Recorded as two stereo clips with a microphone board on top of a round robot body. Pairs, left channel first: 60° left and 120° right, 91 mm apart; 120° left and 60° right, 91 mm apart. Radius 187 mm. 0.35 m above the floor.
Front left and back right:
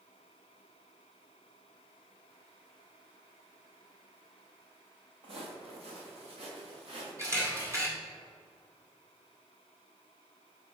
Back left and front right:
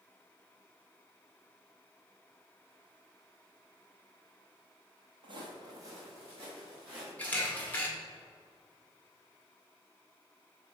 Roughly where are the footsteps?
Right.